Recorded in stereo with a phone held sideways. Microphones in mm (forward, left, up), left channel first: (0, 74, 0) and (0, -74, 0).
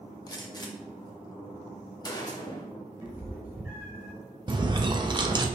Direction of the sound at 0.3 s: 25° left (ahead or behind).